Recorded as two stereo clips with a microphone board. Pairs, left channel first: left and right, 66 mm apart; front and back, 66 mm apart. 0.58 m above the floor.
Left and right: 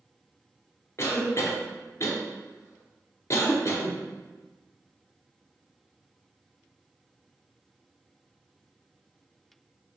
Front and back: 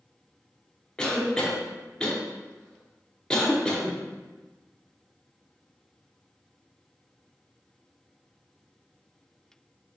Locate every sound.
1.0 s a cough: 75° left, 0.9 m